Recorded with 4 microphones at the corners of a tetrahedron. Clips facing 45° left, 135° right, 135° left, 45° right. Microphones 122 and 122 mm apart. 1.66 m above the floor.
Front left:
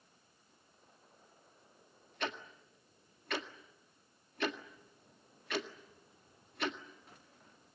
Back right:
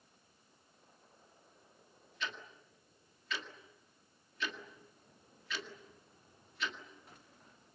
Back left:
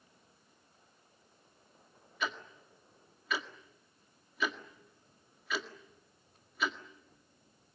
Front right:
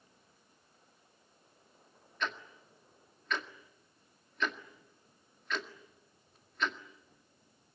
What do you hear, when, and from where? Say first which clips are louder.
2.2 s ticking: front left 4 dB, even; 50° left, 1.8 m